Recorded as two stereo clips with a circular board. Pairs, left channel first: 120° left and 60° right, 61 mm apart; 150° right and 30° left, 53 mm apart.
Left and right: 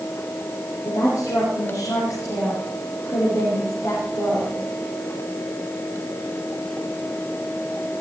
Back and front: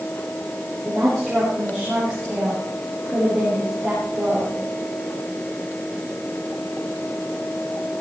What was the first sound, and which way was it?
A woman speaking, 125° left.